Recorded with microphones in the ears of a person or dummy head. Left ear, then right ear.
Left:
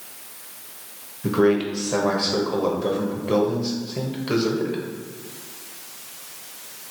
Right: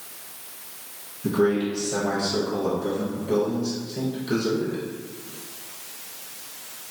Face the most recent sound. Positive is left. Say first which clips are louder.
# left 3 dB
turn(degrees=40)  # may be behind; listen again after turning